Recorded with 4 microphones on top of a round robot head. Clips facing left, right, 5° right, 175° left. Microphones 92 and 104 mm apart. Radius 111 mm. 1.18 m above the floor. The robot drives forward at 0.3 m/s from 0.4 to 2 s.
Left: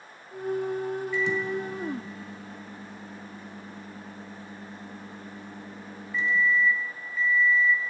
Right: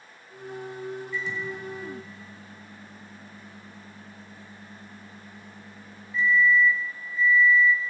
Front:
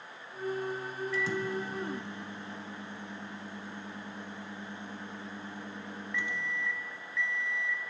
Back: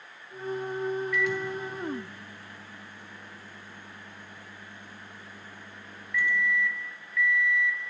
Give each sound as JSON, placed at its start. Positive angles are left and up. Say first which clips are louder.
{"t": 1.1, "sound": "a microwave", "louder": "left 8 dB, back 3 dB", "azimuth_deg": 55, "distance_m": 1.3}